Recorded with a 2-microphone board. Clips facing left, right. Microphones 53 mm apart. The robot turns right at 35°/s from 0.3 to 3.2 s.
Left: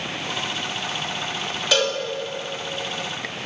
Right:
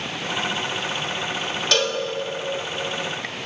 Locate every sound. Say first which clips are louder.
1.7 s a cowbell: left 1 dB; 10° left (ahead or behind), 1.3 m; by 2.0 s centre (ahead or behind), 1.3 m